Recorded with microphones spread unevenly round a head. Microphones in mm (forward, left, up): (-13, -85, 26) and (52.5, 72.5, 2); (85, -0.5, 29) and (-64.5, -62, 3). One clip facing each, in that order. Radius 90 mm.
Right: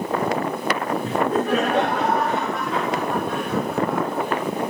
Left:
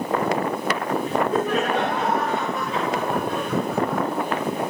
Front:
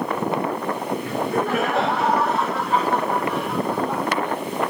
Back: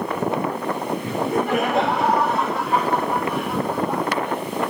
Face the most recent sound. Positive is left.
turn(degrees=-80)